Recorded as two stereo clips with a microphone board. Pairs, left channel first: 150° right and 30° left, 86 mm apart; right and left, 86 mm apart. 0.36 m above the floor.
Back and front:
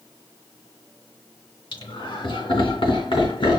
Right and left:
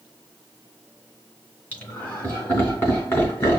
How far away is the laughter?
About 3 m.